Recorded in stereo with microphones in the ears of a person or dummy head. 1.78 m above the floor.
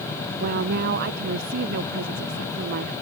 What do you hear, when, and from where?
0.4 s a woman speaking: 55° right (ahead or behind)